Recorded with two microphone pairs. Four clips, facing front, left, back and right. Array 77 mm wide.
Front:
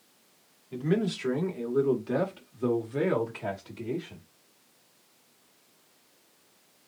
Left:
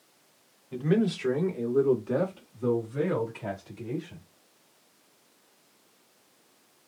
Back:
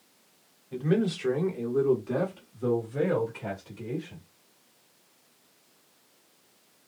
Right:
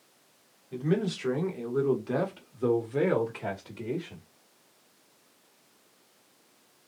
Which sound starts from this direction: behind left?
A man speaking, at 0.7 s.